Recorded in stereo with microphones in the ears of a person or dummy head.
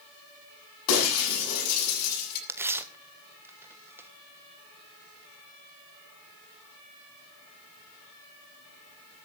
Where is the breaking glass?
85° left, 8 m.